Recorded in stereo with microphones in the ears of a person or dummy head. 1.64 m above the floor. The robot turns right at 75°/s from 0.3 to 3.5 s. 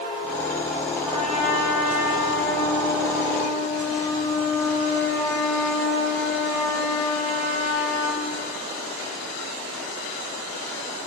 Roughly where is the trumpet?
Behind.